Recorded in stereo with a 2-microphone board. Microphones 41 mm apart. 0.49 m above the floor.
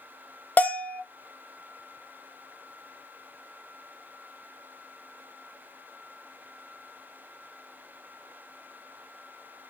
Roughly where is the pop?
I don't hear a pop.